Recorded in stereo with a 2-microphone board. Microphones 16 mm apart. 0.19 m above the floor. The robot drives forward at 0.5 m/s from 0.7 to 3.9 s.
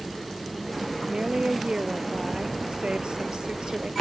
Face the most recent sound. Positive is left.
turn(degrees=-70)  # may be behind; listen again after turning